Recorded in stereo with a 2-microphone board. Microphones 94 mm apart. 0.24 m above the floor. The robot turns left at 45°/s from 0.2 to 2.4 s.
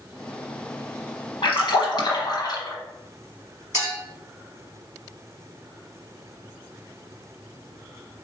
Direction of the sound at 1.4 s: 100° left.